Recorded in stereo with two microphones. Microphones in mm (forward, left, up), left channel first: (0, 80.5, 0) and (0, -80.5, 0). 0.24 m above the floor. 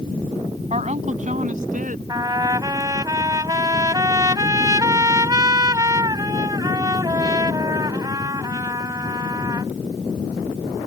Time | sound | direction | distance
0.7 | a woman speaking | 45° right (ahead or behind) | ?
2.1 | a trumpet | 25° right (ahead or behind) | ?